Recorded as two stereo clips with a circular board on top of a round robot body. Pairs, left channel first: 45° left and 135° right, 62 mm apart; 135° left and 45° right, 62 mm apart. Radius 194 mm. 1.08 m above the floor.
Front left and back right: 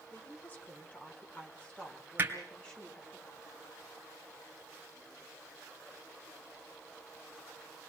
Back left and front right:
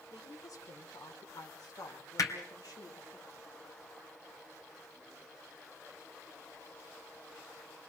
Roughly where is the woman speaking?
Left.